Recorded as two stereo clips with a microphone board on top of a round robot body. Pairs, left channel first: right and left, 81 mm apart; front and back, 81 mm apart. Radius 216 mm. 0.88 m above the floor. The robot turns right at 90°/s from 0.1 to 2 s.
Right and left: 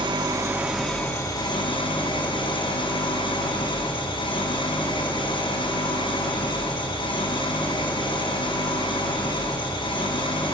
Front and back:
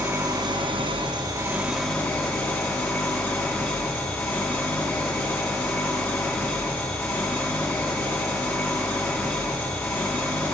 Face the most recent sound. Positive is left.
turn(degrees=-65)